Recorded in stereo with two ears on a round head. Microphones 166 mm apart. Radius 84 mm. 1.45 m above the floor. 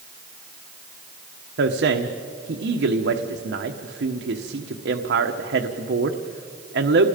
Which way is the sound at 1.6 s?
65° right (ahead or behind).